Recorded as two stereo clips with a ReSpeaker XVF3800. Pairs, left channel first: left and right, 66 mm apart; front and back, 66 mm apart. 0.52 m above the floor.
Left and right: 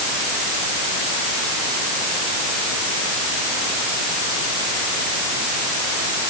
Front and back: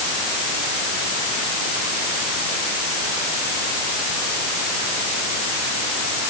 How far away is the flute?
No flute in this recording.